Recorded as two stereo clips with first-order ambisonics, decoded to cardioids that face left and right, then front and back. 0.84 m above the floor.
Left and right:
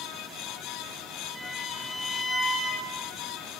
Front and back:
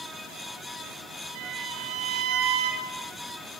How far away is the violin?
About 4 m.